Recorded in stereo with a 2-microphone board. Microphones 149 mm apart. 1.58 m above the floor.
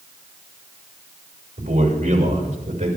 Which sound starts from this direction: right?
A man speaking, at 1.6 s.